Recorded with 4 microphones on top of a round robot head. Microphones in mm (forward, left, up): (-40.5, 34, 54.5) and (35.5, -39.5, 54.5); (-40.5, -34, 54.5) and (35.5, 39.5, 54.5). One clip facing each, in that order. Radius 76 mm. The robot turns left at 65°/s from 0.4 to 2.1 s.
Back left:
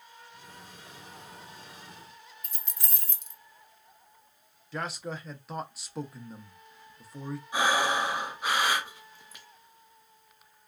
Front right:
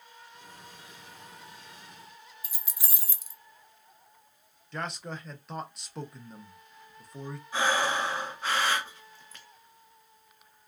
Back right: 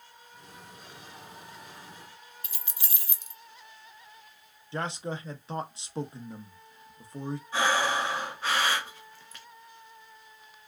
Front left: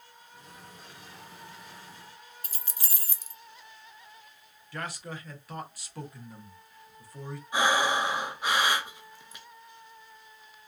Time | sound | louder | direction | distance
2.4 | keys jangling | even, even | 40° left | 0.6 m
4.7 | a man speaking | back left 1 dB, back right 5 dB | 140° right | 0.6 m
7.5 | breathing | back left 1 dB, front left 1 dB | 90° left | 0.8 m